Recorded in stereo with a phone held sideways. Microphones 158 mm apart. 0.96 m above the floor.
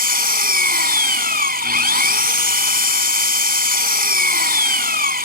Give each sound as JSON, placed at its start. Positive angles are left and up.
{"t": 0.0, "sound": "an engine running", "side_deg": -70}